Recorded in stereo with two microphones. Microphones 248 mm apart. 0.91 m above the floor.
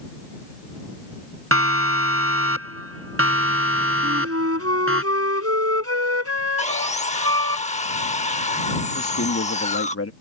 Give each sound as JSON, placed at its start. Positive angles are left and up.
{"t": 1.5, "sound": "a siren", "side_deg": -65}
{"t": 4.0, "sound": "a flute", "side_deg": -70}
{"t": 6.6, "sound": "sawing", "side_deg": 30}
{"t": 8.9, "sound": "a man speaking", "side_deg": 65}